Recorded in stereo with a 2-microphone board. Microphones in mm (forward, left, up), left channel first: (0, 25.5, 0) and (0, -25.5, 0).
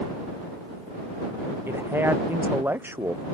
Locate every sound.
1.7 s a man speaking: 45° right (ahead or behind)